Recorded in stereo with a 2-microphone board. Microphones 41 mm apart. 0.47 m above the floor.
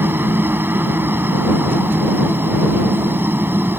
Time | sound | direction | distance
0.0 | a helicopter | 60° right (ahead or behind) | ?